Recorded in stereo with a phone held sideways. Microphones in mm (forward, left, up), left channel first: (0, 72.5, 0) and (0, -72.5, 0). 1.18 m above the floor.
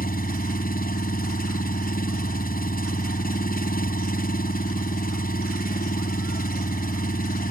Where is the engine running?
75° left (ahead or behind).